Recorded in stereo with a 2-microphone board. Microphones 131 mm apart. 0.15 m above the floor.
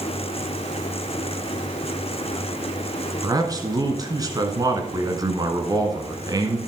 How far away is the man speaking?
About 1.6 m.